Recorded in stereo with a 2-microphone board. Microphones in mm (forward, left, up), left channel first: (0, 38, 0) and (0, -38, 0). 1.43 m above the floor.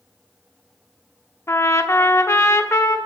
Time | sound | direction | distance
1.5 | a trumpet | 35° left (ahead or behind) | 0.9 m